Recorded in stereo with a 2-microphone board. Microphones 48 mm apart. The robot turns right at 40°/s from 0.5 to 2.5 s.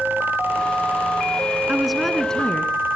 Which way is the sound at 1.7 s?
10° right.